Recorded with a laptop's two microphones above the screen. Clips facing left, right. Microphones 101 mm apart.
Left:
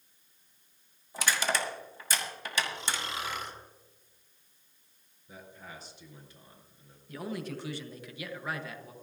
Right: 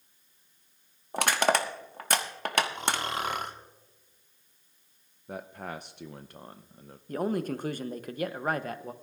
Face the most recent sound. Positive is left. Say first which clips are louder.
# right 8 dB
turn(degrees=-45)  # may be behind; listen again after turning